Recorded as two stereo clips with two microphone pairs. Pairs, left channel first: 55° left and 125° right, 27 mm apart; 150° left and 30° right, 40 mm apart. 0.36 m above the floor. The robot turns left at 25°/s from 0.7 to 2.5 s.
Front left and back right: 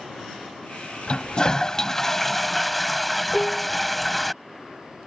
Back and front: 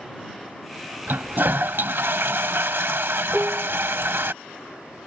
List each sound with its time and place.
1.1 s a toilet flushing: straight ahead; by 4.3 s 40° right
3.3 s dishes clattering: 15° right